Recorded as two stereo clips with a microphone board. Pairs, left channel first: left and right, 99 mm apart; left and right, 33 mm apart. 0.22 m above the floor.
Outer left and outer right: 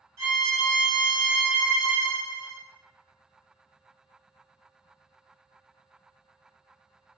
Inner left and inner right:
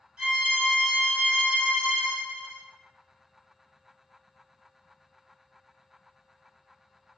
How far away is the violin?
About 1.4 m.